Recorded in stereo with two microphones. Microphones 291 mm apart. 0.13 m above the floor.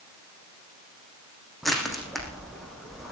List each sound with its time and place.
1.6 s crushing: centre (ahead or behind), 4 m